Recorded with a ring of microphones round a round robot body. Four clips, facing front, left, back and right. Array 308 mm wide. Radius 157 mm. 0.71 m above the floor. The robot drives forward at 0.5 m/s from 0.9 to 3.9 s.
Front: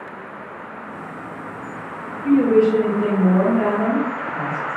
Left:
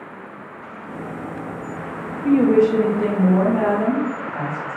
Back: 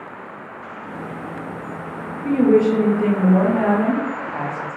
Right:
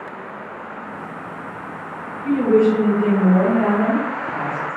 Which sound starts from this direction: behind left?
A woman speaking, at 2.2 s.